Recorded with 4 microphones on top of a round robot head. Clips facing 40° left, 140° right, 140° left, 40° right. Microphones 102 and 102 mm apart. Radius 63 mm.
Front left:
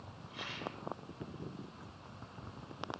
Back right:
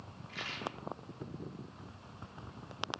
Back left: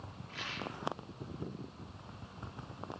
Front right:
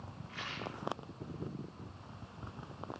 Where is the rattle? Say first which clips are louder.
Back right 2 dB, back left 1 dB; 150° right, 6.5 m.